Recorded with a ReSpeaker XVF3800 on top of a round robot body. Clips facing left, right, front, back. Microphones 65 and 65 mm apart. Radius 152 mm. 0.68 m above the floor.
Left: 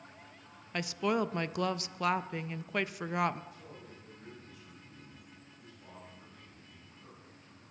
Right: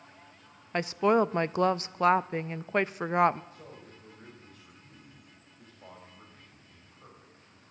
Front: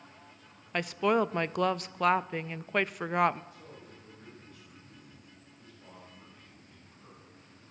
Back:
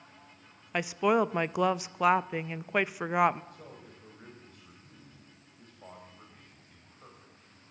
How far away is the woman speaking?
About 0.5 m.